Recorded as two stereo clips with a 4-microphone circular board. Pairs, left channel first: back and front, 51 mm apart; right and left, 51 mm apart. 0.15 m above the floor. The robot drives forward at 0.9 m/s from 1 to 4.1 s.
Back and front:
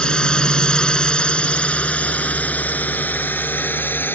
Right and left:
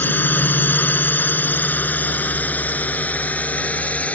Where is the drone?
115° right; by 4.2 s 145° right.